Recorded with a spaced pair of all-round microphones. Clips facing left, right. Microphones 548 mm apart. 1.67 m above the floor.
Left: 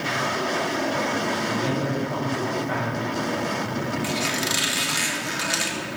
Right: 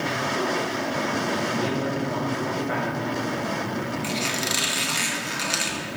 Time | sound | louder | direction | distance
1.5 | a man speaking | left 1 dB | 30° left (ahead or behind) | 6.5 m
4.0 | a squeak | left 1 dB | 40° left (ahead or behind) | 1.5 m